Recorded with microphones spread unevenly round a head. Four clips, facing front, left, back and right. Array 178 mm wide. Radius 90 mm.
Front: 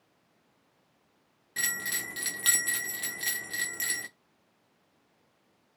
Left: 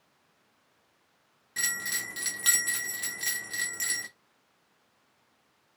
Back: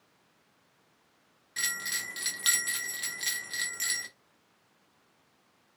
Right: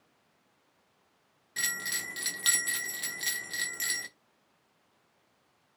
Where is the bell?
15° right, 0.5 m.